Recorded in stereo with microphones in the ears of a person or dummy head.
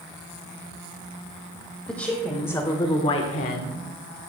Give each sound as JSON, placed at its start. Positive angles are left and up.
{"t": 1.9, "sound": "a woman speaking", "side_deg": 5, "distance_m": 2.0}